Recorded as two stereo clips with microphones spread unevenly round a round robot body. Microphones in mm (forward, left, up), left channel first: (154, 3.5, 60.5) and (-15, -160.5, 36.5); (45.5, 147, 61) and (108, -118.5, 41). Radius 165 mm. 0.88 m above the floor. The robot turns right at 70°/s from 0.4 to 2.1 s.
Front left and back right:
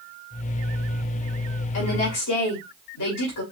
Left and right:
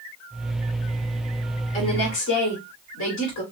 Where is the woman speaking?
35° left, 2.5 m; by 3.4 s 65° left, 2.5 m.